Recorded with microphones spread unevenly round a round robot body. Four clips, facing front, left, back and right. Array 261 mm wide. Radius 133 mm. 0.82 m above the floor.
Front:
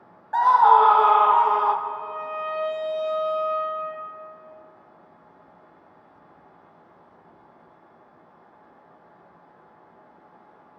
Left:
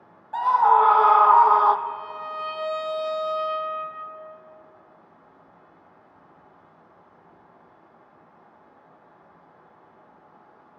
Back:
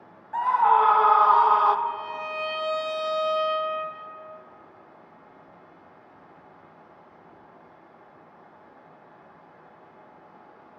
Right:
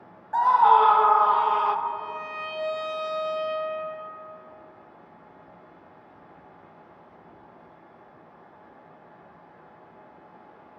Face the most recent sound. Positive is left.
turn(degrees=180)